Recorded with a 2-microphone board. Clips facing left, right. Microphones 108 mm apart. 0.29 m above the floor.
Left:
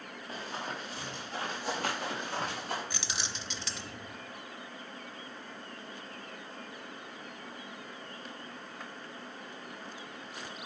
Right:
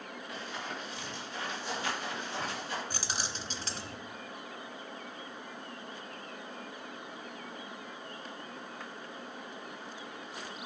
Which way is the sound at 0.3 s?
40° left (ahead or behind).